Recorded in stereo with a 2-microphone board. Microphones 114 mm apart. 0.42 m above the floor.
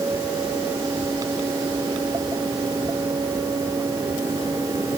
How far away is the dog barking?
I don't hear a dog barking.